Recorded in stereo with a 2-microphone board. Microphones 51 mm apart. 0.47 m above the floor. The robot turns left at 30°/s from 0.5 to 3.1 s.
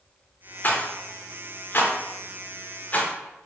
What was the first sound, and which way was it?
A rattle, 40° left (ahead or behind).